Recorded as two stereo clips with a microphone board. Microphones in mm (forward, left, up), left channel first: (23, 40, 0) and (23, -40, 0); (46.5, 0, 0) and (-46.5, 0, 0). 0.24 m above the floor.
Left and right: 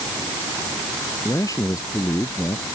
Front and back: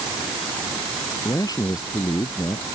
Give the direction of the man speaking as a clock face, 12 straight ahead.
10 o'clock.